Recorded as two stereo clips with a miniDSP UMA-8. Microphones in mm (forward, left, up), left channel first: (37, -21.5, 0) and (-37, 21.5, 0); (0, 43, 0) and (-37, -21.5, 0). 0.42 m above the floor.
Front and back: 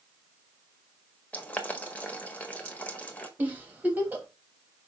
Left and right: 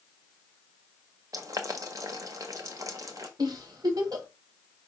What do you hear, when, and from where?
1.3 s boiling: 100° right, 1.3 m
3.4 s a giggle: 140° right, 1.6 m